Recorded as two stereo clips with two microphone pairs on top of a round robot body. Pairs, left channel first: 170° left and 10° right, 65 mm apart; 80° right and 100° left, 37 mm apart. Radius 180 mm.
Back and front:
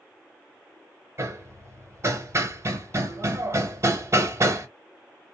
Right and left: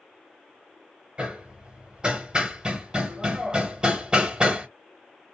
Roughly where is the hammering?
Ahead left.